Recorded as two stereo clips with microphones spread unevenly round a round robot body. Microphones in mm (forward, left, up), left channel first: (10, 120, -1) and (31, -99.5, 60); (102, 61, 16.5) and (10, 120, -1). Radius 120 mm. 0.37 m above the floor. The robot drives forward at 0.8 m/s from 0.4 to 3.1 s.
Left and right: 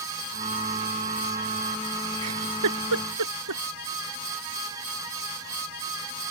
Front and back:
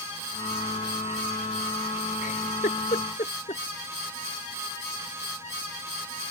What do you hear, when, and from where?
2.2 s a giggle: 70° right; by 3.6 s 80° right